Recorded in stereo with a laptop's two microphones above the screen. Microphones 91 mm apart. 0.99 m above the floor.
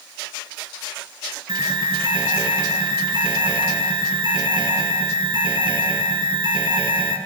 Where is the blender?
I don't hear a blender.